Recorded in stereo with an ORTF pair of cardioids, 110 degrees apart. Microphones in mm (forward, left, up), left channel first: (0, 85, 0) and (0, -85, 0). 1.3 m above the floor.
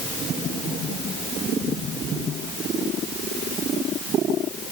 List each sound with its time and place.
Only background noise.